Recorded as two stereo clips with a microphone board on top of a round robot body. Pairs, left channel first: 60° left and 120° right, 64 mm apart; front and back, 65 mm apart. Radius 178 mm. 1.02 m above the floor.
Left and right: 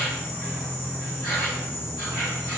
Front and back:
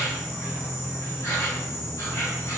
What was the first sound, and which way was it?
An insect, 35° left.